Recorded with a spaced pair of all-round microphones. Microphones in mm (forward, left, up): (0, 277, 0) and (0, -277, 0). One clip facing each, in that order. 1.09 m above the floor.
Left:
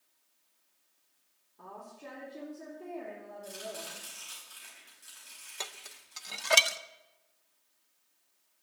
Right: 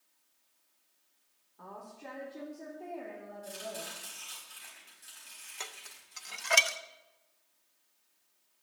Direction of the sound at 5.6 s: 60° left (ahead or behind).